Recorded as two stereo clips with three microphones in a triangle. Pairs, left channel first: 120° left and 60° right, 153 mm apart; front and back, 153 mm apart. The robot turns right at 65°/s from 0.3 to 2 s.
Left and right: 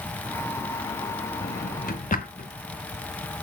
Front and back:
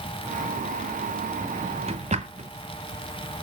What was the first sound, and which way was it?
A drawer, 105° left.